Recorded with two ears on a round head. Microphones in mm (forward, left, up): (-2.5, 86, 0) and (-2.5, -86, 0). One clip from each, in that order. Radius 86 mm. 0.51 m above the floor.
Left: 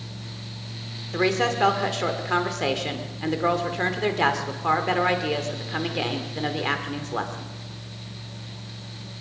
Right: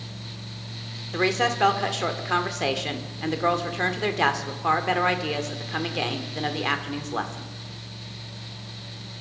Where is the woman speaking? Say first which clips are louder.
Even; 15° right (ahead or behind), 1.3 m.